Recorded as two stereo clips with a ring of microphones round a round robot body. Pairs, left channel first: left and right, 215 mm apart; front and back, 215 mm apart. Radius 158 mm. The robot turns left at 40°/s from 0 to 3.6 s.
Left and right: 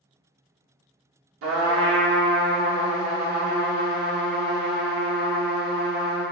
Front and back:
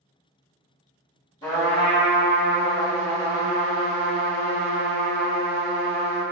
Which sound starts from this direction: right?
A trumpet, at 1.4 s.